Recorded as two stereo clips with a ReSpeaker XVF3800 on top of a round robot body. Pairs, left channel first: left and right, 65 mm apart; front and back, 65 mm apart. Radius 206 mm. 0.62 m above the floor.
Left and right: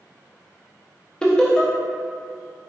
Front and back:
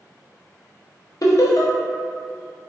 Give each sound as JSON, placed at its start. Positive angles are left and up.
{"t": 1.2, "sound": "laughter", "azimuth_deg": 15, "distance_m": 0.8}